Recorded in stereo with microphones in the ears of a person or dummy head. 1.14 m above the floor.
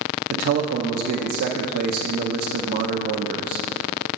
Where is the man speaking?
50° right (ahead or behind), 0.5 m.